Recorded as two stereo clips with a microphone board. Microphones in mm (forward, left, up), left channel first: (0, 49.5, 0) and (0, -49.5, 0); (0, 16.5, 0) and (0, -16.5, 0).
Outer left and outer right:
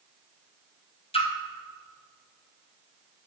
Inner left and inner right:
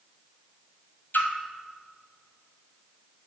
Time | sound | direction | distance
1.1 | a splash | 75° left (ahead or behind) | 1.3 m